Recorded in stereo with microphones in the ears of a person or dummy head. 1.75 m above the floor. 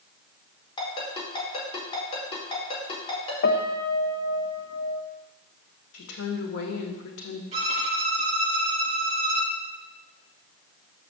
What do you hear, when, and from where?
0.8 s a ringtone: 30° left (ahead or behind), 4.5 m
3.4 s a piano: 55° left (ahead or behind), 1.0 m
5.9 s a woman speaking: 80° left, 2 m
7.5 s a violin: 35° right (ahead or behind), 2 m